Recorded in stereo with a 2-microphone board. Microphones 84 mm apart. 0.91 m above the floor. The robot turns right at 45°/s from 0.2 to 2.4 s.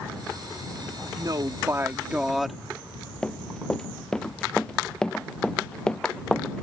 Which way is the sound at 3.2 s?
5° left (ahead or behind).